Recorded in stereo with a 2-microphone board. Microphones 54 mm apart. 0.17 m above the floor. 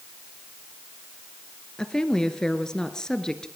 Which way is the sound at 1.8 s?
15° left (ahead or behind).